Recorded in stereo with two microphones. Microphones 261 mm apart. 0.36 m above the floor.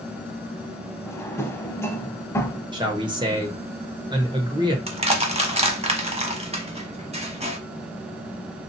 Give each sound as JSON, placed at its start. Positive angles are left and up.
{"t": 1.1, "sound": "a drawer", "side_deg": 10, "distance_m": 0.5}
{"t": 2.7, "sound": "a man speaking", "side_deg": -15, "distance_m": 1.0}
{"t": 4.9, "sound": "crushing", "side_deg": -25, "distance_m": 0.7}